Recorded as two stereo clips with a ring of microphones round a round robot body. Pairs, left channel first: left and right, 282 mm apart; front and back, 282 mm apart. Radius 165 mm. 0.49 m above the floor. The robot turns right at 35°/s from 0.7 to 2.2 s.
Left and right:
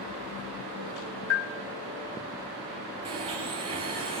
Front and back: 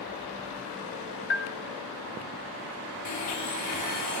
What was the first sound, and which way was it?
A bell, 50° left.